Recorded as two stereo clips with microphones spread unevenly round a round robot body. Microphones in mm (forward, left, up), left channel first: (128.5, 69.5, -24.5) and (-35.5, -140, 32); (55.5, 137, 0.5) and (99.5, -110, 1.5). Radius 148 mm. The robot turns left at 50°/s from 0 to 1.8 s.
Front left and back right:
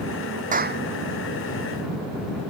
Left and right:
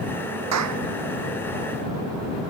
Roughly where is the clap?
Right.